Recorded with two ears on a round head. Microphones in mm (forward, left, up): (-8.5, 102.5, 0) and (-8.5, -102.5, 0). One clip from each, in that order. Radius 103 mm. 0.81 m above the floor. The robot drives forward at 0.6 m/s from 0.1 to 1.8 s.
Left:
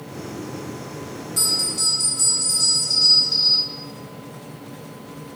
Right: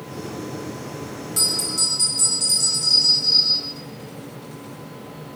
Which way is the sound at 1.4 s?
25° right (ahead or behind).